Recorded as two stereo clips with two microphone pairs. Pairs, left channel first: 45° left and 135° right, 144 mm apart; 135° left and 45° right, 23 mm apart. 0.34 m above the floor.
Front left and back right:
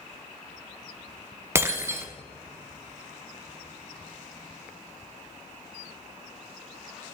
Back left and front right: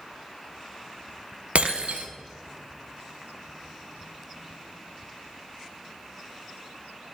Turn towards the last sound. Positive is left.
turn(degrees=-60)